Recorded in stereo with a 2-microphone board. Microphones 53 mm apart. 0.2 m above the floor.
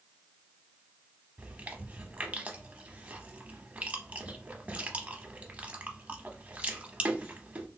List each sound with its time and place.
1.4 s chewing: 30° right (ahead or behind), 0.7 m